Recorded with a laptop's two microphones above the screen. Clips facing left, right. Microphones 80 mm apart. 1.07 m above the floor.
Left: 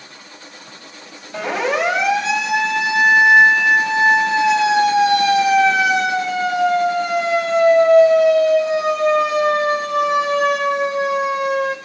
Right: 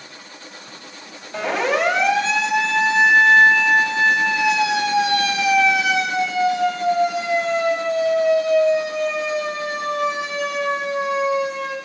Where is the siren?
Centre (ahead or behind), 6 m; by 11.8 s 70° left (ahead or behind), 6.5 m.